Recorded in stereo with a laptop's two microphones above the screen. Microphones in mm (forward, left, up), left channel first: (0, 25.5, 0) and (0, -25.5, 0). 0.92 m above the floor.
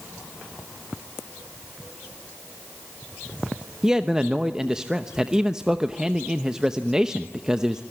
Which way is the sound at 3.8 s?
15° right (ahead or behind).